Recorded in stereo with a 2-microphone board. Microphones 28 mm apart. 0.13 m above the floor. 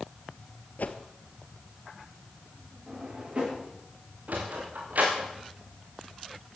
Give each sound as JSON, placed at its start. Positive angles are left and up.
{"t": 0.8, "sound": "a whoosh", "side_deg": 60, "distance_m": 1.4}
{"t": 2.9, "sound": "a drawer", "side_deg": -40, "distance_m": 9.0}
{"t": 4.3, "sound": "a sliding door", "side_deg": -65, "distance_m": 4.0}